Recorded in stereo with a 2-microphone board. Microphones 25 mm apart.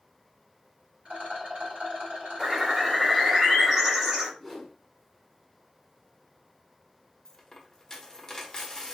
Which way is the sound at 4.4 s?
10° left (ahead or behind).